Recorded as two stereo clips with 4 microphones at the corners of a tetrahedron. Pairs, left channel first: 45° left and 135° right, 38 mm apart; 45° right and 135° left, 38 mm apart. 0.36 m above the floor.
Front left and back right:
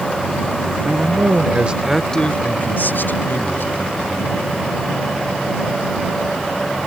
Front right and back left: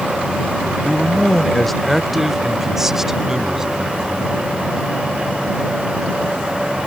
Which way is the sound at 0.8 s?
120° right.